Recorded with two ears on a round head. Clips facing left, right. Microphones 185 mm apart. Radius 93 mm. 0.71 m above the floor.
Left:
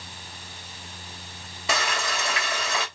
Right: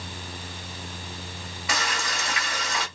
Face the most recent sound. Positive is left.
turn(degrees=25)  # may be behind; listen again after turning